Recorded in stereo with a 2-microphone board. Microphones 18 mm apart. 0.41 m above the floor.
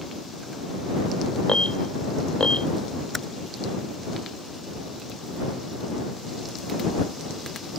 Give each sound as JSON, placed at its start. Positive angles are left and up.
{"t": 1.5, "sound": "an alarm", "side_deg": 65}
{"t": 3.1, "sound": "typing on a keyboard", "side_deg": 5}